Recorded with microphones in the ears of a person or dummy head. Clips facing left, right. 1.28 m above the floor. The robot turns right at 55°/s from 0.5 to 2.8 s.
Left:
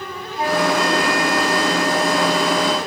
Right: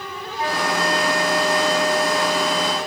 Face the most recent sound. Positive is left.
turn(degrees=145)